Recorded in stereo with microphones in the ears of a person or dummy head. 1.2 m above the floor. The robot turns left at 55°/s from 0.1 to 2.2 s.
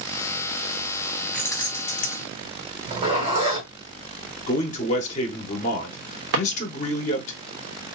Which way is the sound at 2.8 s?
30° right (ahead or behind).